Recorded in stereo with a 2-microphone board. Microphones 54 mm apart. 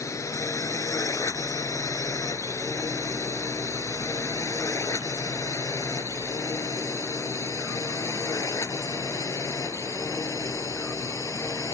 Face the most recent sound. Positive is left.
turn(degrees=80)